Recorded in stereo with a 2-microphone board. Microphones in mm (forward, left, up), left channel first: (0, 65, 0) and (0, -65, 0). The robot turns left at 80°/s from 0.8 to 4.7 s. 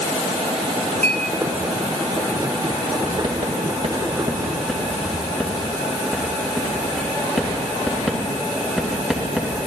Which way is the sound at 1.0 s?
70° right (ahead or behind).